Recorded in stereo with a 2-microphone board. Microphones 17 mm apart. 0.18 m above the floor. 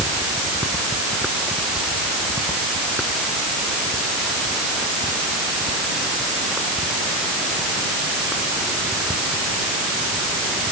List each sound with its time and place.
Only background noise.